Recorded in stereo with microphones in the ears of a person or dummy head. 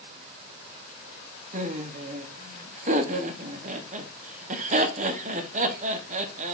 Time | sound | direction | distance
1.5 | laughter | 40° right (ahead or behind) | 0.7 m